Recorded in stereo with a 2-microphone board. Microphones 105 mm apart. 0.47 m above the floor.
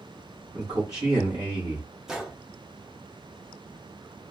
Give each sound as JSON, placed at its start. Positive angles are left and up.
{"t": 0.5, "sound": "a man speaking", "side_deg": -40, "distance_m": 1.7}
{"t": 2.1, "sound": "a gunshot", "side_deg": -5, "distance_m": 0.5}